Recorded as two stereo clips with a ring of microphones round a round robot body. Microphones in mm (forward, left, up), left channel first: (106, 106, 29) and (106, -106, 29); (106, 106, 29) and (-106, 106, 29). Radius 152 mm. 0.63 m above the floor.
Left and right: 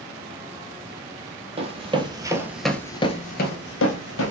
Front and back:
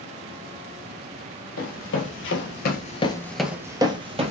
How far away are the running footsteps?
About 1.4 m.